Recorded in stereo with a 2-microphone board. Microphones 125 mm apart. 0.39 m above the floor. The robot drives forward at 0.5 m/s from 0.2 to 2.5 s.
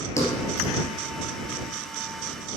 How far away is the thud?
About 3 m.